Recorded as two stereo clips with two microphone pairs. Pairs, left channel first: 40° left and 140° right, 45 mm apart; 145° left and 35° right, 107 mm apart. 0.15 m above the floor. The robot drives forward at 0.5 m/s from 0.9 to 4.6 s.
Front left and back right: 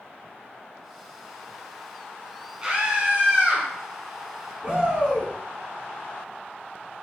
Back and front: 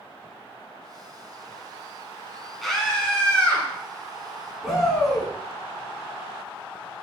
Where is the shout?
125° right, 1.5 m.